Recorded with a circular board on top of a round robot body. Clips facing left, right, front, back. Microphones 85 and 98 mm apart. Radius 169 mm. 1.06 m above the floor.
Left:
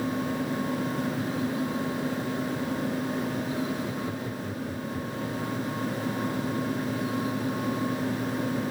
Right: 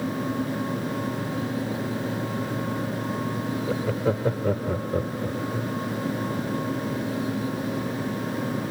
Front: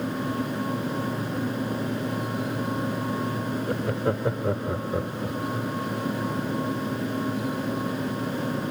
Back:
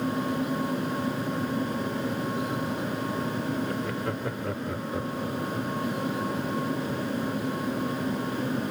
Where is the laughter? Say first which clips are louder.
Right 6 dB, front 4 dB; 60° right; by 5.7 s 75° right.